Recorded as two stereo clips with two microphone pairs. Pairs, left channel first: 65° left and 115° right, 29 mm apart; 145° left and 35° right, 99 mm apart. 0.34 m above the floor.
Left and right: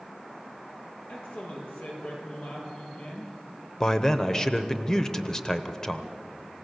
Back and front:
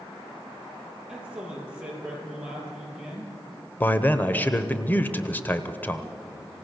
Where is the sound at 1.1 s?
45° left, 7.5 m.